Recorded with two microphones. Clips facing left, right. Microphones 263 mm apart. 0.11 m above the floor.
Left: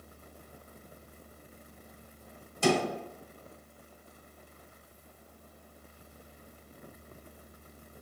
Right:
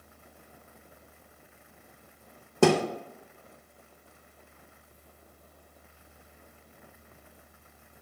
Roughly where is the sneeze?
No sneeze in this recording.